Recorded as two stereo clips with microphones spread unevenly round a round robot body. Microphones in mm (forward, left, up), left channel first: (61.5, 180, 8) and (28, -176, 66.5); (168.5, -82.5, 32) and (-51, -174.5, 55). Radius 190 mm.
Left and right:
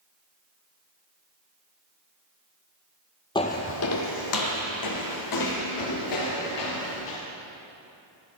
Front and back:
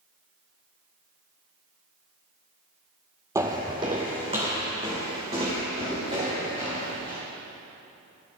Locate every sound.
3.4 s footsteps: 170° left, 0.5 m; by 7.2 s 125° left, 4 m